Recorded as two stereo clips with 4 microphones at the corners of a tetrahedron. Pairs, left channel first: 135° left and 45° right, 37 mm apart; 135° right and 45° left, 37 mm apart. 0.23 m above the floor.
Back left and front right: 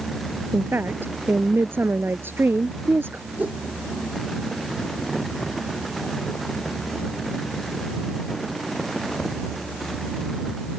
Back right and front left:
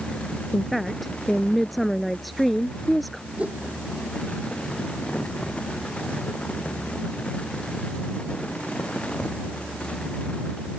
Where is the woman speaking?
45° right.